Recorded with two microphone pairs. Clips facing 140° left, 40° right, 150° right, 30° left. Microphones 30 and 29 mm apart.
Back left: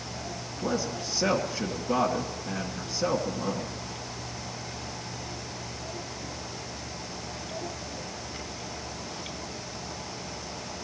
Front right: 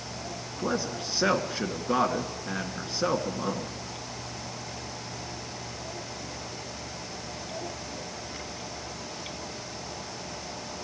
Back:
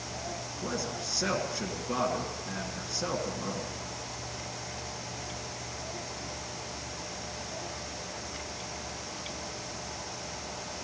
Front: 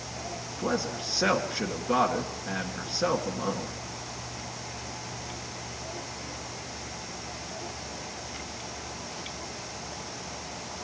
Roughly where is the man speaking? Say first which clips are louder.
Even, front 6 dB; ahead.